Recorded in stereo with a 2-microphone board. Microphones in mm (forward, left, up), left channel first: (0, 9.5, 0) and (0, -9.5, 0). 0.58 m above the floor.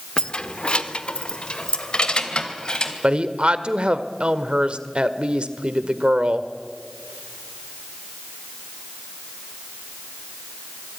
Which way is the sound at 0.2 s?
50° left (ahead or behind).